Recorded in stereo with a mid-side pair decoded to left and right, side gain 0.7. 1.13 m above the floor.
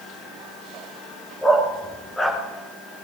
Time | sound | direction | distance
1.4 | a dog barking | 10° left | 6 m